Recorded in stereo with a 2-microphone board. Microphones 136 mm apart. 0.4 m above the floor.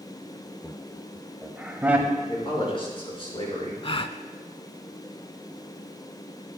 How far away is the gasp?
About 0.5 m.